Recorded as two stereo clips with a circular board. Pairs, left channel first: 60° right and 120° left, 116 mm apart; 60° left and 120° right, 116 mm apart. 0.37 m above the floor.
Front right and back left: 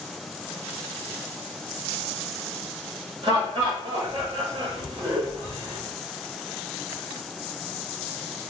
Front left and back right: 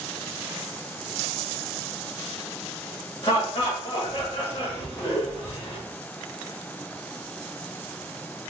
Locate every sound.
3.2 s laughter: 80° left, 1.7 m